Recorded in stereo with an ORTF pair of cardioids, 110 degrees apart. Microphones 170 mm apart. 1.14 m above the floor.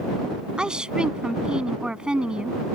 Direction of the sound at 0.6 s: 5° right.